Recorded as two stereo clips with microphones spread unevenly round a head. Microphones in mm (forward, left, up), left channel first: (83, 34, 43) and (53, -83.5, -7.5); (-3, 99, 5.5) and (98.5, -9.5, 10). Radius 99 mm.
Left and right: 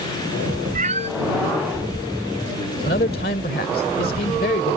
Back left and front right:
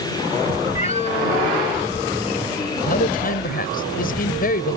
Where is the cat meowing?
170° right.